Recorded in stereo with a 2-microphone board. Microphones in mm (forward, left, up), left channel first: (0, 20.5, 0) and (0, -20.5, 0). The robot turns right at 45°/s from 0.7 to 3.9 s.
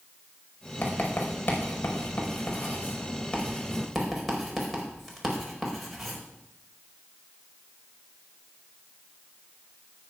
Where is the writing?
40° left (ahead or behind), 4.5 m; by 6.2 s centre (ahead or behind), 4.5 m.